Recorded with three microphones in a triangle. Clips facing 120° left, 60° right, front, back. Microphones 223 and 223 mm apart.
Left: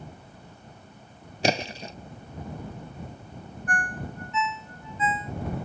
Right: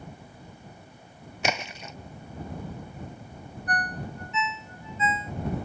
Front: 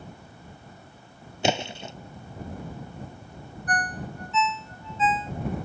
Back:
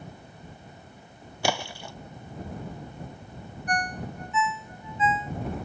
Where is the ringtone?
110° right.